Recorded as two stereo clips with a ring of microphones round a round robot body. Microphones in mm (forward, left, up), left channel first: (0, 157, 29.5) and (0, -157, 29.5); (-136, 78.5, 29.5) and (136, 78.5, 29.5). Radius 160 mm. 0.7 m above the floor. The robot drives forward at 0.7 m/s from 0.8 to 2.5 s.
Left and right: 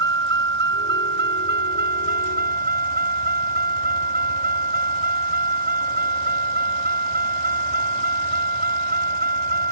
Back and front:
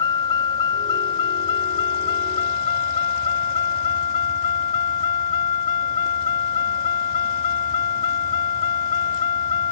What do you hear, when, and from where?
0.0 s a vehicle: 145° right; by 9.7 s 155° right